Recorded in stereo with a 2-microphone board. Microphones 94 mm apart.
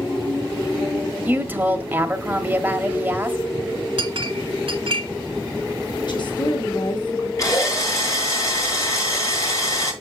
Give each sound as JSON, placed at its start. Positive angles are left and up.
{"t": 1.2, "sound": "a woman speaking", "side_deg": -20, "distance_m": 1.0}
{"t": 4.0, "sound": "a clink", "side_deg": -70, "distance_m": 1.6}
{"t": 6.1, "sound": "a woman speaking", "side_deg": 55, "distance_m": 2.5}
{"t": 7.4, "sound": "a drill", "side_deg": 40, "distance_m": 2.5}